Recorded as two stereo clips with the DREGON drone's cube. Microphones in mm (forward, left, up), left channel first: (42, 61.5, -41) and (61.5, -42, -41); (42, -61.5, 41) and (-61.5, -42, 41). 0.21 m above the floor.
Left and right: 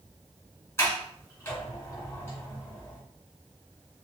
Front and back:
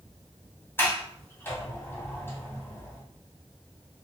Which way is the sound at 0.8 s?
45° left.